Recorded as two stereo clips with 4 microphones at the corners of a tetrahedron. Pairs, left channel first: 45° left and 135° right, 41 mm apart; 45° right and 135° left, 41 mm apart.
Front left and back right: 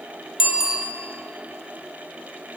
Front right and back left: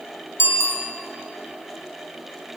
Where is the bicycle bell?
55° right, 3 m.